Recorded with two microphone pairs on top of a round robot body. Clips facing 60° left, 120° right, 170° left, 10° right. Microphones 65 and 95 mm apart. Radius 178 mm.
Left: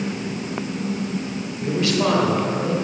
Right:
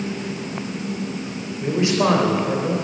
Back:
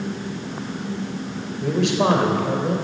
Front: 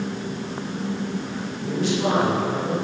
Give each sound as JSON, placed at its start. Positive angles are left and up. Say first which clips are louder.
{"t": 1.6, "sound": "a man speaking", "louder": "right 2 dB, back 4 dB", "azimuth_deg": 175, "distance_m": 3.5}